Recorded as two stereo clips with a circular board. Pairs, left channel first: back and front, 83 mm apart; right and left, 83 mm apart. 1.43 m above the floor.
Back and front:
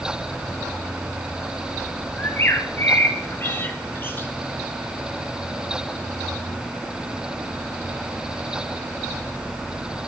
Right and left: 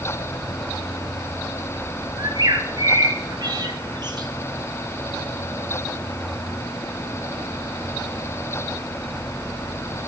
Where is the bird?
115° left, 2 m.